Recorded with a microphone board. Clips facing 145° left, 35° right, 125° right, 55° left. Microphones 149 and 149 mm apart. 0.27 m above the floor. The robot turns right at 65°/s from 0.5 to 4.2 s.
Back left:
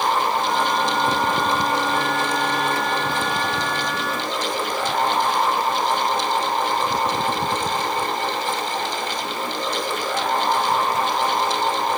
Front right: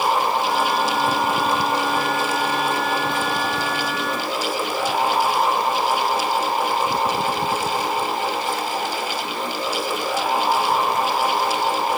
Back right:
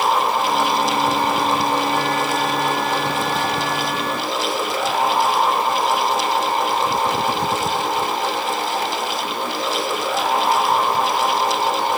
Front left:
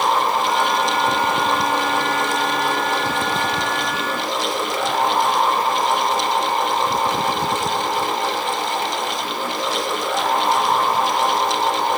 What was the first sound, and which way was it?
Only background noise.